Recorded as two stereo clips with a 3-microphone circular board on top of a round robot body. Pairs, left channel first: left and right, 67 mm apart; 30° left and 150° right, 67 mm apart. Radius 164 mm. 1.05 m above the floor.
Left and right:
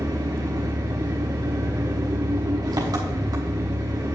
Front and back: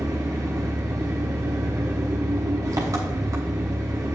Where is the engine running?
115° right, 0.9 m.